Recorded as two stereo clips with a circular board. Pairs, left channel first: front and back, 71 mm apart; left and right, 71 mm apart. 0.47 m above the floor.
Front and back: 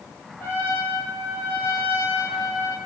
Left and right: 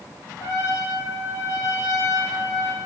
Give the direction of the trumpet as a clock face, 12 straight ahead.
10 o'clock.